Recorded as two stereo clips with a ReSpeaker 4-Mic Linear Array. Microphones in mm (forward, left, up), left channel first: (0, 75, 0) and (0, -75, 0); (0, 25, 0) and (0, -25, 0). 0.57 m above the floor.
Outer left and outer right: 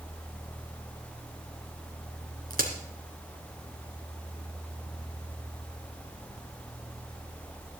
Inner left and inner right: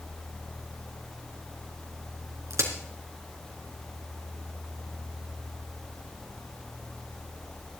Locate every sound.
2.5 s a crack: 80° right, 2.5 m